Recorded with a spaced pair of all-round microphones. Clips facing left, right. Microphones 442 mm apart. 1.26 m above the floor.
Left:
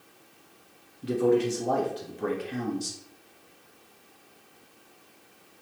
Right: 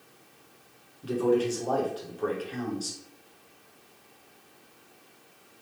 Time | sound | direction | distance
1.0 | a man speaking | 40° left (ahead or behind) | 1.5 m